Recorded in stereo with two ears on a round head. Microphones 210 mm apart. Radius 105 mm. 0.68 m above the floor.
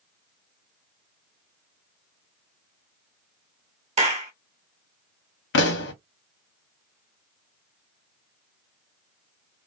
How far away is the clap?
About 1.1 m.